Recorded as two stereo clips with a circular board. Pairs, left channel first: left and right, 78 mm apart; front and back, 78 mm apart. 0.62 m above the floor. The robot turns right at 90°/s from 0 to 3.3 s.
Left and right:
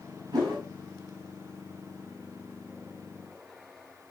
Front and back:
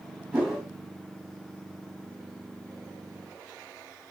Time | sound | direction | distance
0.3 | a whoosh | 110° right | 1.8 m